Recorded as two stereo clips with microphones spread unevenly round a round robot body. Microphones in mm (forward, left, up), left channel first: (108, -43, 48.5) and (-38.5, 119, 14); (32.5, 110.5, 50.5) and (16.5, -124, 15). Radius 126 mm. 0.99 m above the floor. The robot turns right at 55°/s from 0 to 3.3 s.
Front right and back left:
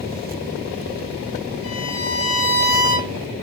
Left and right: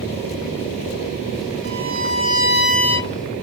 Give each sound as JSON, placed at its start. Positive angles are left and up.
{"t": 1.6, "sound": "a violin", "azimuth_deg": -70, "distance_m": 1.5}